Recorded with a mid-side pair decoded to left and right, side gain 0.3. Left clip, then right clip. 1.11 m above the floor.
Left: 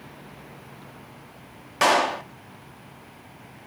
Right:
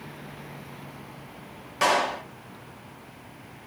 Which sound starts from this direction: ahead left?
A clap, at 1.8 s.